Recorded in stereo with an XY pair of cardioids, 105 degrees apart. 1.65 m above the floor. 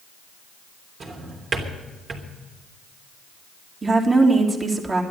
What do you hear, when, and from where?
1.0 s a drawer: 45° right, 3 m
3.8 s a woman speaking: 25° right, 3 m